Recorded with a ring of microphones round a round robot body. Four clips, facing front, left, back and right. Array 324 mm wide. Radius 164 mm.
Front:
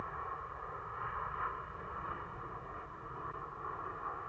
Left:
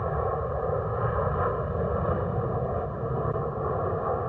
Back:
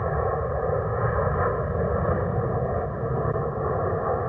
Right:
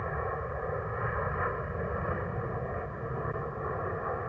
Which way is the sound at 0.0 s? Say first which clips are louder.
Left 6 dB, back 17 dB; 160° left.